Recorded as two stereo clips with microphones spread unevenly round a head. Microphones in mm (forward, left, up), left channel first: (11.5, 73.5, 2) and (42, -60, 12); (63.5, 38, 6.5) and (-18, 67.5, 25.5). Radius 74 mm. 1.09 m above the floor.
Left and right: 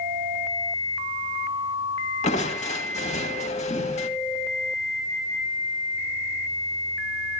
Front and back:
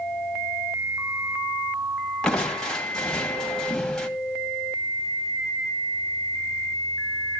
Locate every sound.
2.2 s crushing: 65° left, 2 m